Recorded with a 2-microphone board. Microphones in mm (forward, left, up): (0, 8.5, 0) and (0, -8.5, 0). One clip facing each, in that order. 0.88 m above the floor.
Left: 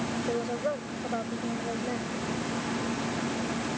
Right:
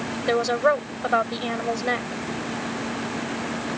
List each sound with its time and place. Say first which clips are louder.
0.3 s a woman speaking: right 13 dB; 60° right (ahead or behind)